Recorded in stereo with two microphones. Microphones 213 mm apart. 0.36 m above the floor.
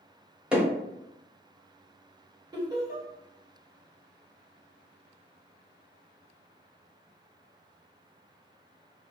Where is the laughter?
20° right (ahead or behind), 1.4 m.